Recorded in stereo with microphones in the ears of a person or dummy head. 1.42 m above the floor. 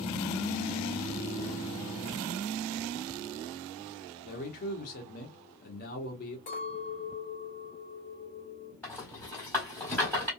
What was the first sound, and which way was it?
A man speaking, 50° left (ahead or behind).